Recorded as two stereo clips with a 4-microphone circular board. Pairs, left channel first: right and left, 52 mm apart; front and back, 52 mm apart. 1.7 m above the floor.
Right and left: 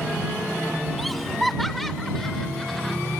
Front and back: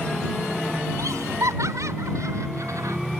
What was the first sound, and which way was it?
Laughter, straight behind.